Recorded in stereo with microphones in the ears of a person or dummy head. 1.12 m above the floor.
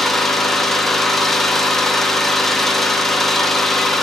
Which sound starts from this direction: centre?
An engine running, at 0.0 s.